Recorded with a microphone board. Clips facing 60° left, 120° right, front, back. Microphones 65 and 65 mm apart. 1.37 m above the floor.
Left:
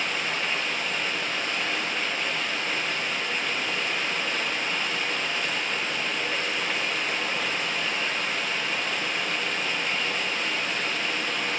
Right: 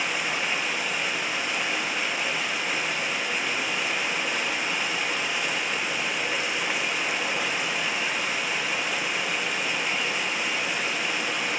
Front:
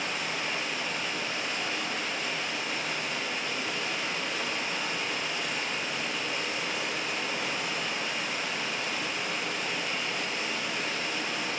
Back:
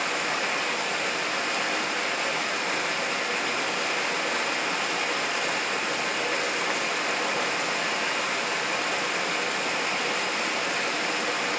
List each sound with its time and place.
0.0 s running water: 160° left, 1.1 m